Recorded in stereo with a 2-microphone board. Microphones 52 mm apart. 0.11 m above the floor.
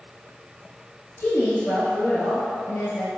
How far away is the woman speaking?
About 1.6 m.